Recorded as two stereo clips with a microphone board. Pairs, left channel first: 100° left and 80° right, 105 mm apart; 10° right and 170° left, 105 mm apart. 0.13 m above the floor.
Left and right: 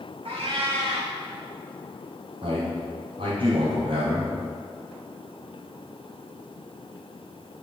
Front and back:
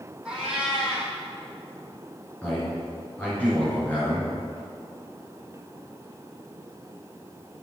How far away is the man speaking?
About 2.5 m.